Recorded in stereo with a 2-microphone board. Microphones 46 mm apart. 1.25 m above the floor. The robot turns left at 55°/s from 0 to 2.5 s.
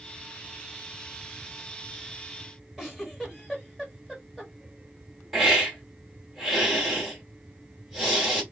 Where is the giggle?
5° right (ahead or behind), 1.5 m.